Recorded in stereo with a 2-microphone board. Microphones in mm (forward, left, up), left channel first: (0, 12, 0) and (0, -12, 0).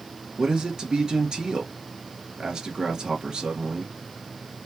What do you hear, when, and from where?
0.4 s a man speaking: 35° right (ahead or behind), 2 m